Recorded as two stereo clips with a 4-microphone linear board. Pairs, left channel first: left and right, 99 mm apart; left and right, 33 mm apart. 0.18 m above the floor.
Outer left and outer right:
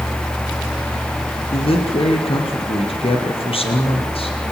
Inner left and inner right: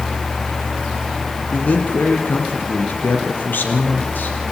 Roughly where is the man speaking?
Left.